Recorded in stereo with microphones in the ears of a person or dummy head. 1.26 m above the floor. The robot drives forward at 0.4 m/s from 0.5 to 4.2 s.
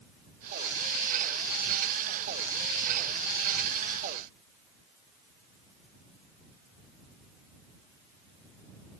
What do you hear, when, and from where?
Only background noise.